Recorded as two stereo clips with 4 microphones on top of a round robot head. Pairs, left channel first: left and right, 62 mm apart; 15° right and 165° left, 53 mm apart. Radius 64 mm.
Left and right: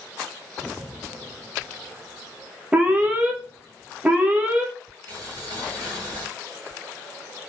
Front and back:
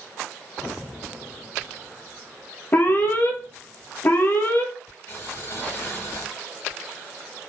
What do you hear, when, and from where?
2.7 s an alarm: 30° right, 1.1 m
5.1 s boiling: 70° right, 2.5 m